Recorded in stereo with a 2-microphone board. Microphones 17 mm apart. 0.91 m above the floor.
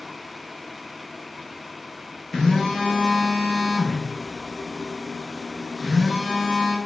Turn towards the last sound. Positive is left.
turn(degrees=20)  # may be behind; listen again after turning